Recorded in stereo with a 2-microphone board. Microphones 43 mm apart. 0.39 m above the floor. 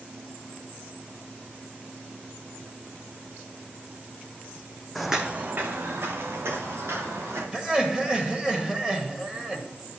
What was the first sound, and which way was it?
Footsteps, 5° left (ahead or behind).